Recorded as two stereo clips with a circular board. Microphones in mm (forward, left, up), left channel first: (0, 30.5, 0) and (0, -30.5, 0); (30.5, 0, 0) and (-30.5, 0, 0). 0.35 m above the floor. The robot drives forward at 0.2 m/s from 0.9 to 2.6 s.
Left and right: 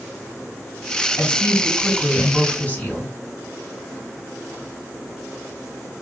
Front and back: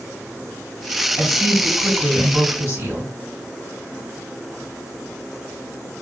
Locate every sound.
1.2 s a woman speaking: 145° left, 1.8 m; by 3.1 s 150° left, 2.0 m